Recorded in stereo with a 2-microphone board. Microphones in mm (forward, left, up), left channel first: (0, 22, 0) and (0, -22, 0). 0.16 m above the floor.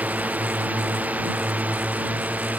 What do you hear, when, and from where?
0.0 s a drone: 35° right (ahead or behind)